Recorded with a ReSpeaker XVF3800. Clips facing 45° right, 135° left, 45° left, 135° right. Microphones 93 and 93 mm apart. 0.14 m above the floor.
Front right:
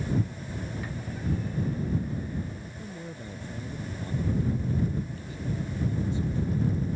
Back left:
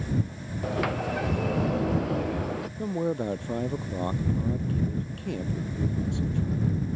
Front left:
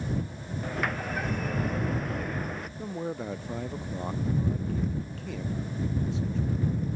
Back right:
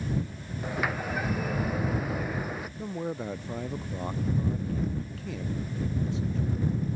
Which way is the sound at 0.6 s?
140° left.